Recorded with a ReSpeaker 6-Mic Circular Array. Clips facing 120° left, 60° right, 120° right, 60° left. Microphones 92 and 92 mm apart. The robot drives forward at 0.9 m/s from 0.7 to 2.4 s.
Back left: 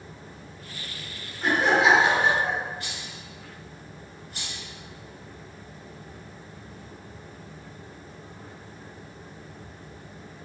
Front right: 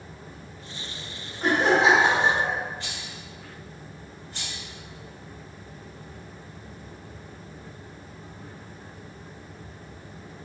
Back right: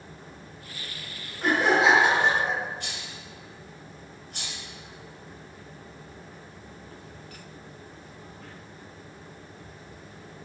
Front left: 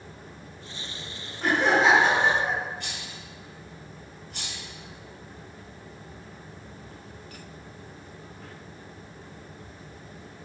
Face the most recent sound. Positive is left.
turn(degrees=-115)